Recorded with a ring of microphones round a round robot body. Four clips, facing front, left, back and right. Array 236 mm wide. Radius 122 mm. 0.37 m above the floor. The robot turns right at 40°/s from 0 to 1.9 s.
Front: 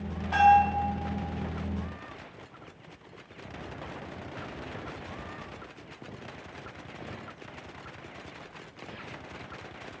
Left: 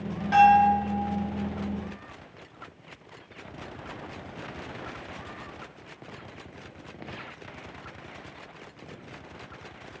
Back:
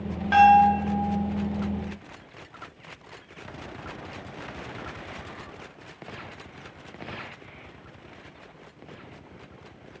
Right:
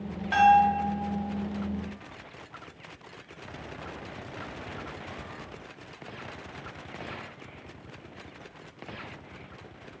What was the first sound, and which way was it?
A bell, 165° right.